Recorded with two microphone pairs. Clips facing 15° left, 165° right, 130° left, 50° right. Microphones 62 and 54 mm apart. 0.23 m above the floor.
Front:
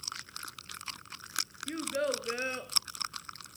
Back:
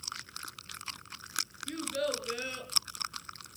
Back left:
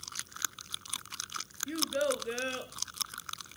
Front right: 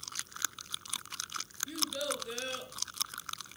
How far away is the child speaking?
About 3.5 m.